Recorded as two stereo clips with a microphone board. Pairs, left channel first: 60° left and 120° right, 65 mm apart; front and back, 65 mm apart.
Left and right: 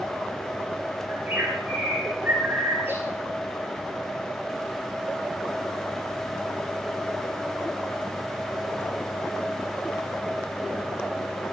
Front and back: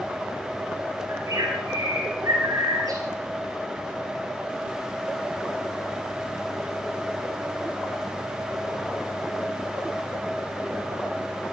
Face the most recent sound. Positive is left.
turn(degrees=-175)